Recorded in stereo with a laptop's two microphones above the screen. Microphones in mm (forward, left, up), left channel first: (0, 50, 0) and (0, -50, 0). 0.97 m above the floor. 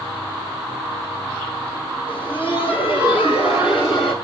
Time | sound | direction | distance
2.1 | laughter | 60° left (ahead or behind) | 1.8 m